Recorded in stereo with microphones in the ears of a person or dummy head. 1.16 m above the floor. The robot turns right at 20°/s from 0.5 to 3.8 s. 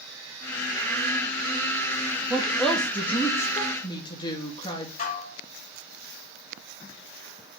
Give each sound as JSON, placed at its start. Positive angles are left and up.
{"t": 2.3, "sound": "a woman speaking", "azimuth_deg": -10, "distance_m": 2.0}
{"t": 5.0, "sound": "dishes clattering", "side_deg": 50, "distance_m": 3.0}